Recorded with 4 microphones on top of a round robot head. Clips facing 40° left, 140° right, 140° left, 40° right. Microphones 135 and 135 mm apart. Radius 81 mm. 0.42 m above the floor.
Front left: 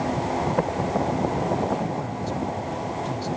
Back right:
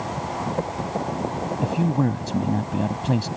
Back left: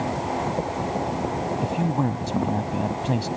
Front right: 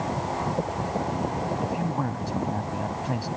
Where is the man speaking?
160° right.